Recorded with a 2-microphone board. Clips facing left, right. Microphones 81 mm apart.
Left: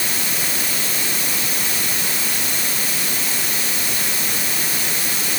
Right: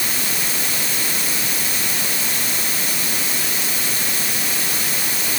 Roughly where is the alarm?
I don't hear an alarm.